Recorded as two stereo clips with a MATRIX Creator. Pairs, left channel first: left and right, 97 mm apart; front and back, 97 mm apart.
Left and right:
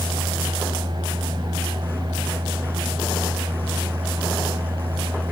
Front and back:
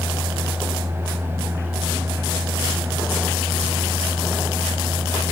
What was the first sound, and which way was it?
Only background noise.